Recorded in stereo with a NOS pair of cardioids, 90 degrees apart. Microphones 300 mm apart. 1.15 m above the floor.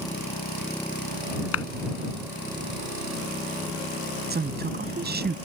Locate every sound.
1.5 s a clap: 55° left
4.3 s a woman speaking: 35° right